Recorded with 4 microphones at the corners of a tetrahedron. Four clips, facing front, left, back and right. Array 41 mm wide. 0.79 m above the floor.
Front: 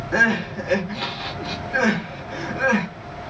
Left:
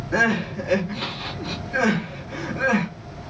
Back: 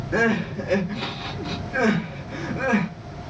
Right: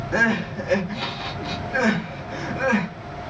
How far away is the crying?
About 1.6 m.